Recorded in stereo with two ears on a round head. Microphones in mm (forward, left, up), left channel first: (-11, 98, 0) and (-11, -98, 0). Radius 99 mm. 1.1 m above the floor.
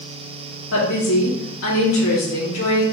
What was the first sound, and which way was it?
A woman speaking, 70° left (ahead or behind).